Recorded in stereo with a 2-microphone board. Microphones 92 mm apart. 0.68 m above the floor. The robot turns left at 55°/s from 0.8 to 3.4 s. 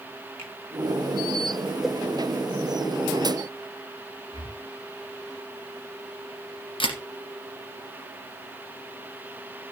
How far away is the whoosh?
About 1.1 m.